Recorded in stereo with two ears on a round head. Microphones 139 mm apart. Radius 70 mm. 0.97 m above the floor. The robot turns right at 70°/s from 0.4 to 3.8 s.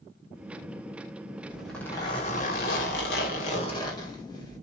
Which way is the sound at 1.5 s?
10° right.